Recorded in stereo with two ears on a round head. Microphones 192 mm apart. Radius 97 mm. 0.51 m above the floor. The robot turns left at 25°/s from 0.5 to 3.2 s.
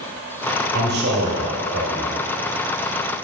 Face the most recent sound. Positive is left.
turn(degrees=-135)